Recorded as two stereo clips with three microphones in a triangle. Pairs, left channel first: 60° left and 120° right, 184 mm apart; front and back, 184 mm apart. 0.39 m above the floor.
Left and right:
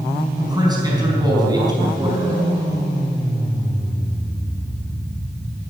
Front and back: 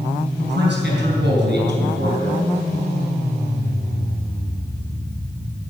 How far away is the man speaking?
About 4.5 m.